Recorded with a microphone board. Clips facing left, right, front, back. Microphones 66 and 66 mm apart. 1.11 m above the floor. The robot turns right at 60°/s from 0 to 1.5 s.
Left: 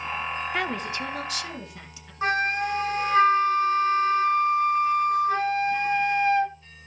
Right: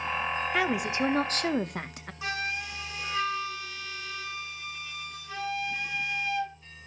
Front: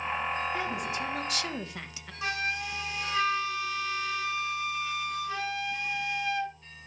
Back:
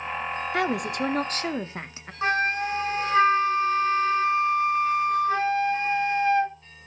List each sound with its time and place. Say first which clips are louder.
0.5 s a woman speaking: right 3 dB, back 6 dB; straight behind, 1.0 m; by 2.1 s 120° right, 1.0 m
2.2 s a flute: left 9 dB, back 8 dB; 135° left, 0.9 m